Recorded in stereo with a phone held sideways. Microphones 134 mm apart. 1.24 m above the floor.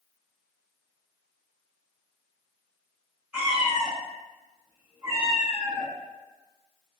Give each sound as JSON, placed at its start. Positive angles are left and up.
{"t": 3.3, "sound": "a cat meowing", "side_deg": -5, "distance_m": 0.8}